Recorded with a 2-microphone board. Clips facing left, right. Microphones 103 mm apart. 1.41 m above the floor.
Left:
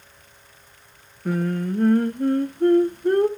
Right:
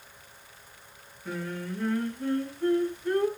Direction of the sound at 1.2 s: 50° left (ahead or behind).